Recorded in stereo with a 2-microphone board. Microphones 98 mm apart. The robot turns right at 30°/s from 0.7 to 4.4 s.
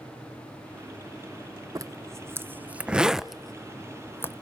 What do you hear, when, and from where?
1.8 s a zipper: 35° right (ahead or behind), 0.5 m; by 4.4 s 25° left (ahead or behind), 0.5 m